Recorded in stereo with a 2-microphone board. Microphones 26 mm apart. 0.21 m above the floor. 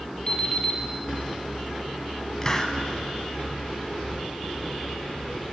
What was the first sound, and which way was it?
An alarm clock, 25° left (ahead or behind).